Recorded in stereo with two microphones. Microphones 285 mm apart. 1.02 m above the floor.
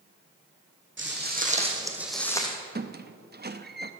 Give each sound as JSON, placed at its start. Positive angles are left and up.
{"t": 1.0, "sound": "footsteps", "side_deg": -40, "distance_m": 2.5}
{"t": 2.8, "sound": "a squeak", "side_deg": -35, "distance_m": 0.6}